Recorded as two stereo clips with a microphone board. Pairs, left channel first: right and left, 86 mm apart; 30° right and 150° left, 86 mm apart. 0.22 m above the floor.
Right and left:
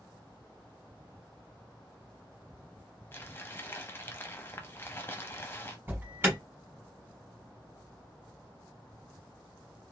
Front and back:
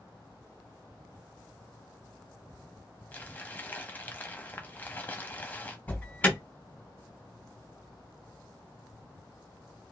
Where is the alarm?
35° left, 1.3 m.